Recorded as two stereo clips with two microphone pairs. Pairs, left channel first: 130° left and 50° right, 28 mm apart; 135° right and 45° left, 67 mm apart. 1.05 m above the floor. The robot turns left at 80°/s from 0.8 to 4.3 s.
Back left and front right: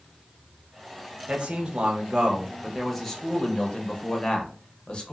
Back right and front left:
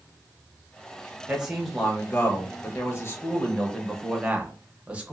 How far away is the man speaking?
About 0.7 m.